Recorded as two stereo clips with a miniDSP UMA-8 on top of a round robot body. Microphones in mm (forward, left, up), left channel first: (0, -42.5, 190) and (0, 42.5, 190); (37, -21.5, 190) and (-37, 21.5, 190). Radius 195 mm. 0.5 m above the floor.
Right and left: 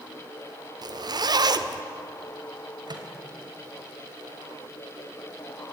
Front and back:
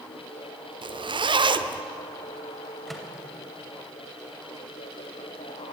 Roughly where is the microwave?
Ahead left.